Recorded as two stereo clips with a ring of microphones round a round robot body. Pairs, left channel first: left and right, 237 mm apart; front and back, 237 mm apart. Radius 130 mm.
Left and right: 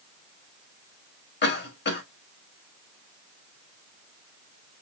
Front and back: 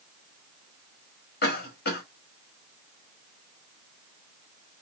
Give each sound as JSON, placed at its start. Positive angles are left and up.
{"t": 1.4, "sound": "a cough", "azimuth_deg": 45, "distance_m": 2.5}